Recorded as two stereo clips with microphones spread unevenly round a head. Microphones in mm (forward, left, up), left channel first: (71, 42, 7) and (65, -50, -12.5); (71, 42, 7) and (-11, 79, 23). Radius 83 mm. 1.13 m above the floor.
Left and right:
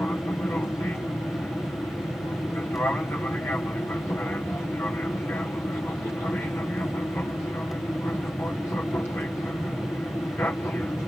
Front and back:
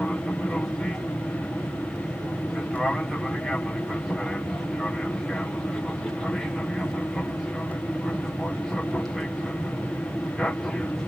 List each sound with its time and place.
0.0 s an aircraft: 35° left